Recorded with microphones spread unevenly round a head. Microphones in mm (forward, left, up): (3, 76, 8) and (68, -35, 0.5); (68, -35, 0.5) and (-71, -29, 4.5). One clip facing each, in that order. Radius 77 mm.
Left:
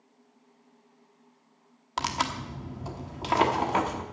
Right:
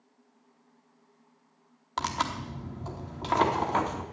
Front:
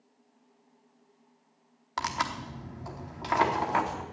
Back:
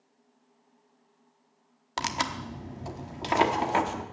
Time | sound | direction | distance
2.0 | tearing paper | 175° right | 1.0 m